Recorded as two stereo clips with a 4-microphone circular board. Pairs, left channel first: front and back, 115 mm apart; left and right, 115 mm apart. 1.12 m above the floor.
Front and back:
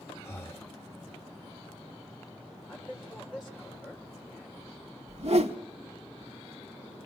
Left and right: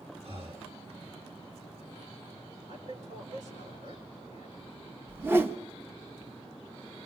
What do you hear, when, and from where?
0.2 s breathing: 65° right, 1.2 m
2.7 s a man speaking: 95° right, 5.5 m
5.1 s a whoosh: 160° right, 0.7 m